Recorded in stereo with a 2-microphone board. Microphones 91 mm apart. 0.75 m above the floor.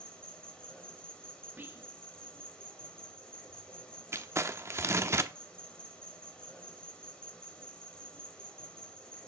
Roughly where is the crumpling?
Right.